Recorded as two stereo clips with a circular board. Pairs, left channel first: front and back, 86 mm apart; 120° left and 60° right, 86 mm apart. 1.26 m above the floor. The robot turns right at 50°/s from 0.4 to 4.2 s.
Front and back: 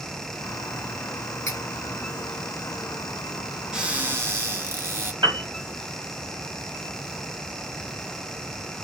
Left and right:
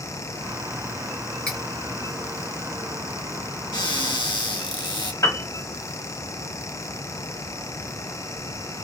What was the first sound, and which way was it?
Cutlery clinking, 45° left.